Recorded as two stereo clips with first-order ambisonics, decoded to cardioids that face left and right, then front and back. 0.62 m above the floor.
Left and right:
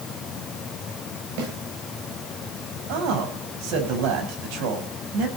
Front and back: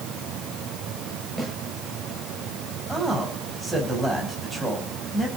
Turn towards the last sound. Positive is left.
turn(degrees=-85)